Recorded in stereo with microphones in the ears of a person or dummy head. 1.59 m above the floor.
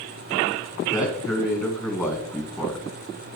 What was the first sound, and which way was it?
A man speaking, 20° left (ahead or behind).